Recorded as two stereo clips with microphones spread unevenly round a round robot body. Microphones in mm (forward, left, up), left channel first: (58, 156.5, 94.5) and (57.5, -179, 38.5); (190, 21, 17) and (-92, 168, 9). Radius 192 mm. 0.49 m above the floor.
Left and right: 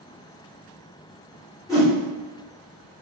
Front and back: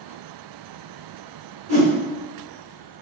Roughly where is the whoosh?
Behind.